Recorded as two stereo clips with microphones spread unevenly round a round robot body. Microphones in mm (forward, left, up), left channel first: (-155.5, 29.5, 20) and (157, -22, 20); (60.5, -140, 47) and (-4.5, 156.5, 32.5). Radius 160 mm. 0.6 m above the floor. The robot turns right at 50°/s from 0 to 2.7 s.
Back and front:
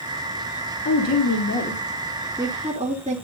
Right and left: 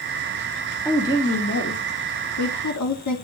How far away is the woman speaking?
About 1.9 m.